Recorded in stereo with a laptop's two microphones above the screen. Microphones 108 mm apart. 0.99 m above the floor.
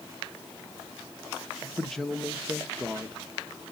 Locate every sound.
1.8 s a man speaking: 5° left (ahead or behind), 1.1 m